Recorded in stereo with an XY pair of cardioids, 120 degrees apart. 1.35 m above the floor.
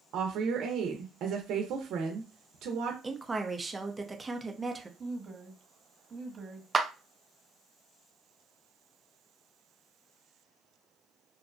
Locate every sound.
0.1 s a woman speaking: 65° right, 0.7 m
3.0 s a woman speaking: 10° right, 0.6 m
5.0 s a woman speaking: 30° right, 1.4 m
6.7 s a clap: 15° right, 0.5 m